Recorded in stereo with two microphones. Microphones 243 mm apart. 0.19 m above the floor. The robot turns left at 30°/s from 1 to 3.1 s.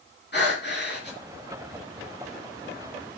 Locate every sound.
0.3 s breathing: 45° left (ahead or behind), 3.5 m; by 1.2 s 40° left (ahead or behind), 3.5 m